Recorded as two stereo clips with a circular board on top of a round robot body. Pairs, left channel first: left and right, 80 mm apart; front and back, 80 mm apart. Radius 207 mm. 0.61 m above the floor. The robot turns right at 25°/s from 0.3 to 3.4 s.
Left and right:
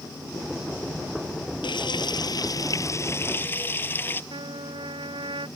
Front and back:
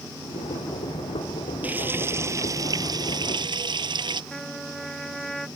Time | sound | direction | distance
1.6 | frying | 110° left | ?
4.3 | a trumpet | 85° right | ?